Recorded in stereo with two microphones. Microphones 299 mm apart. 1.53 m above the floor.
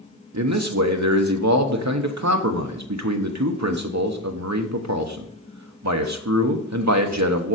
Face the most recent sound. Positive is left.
turn(degrees=-65)  # may be behind; listen again after turning